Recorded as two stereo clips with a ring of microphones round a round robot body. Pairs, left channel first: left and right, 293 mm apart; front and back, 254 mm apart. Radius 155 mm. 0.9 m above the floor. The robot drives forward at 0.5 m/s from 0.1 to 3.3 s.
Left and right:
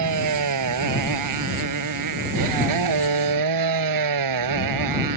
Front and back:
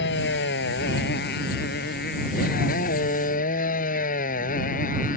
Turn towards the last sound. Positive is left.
turn(degrees=-65)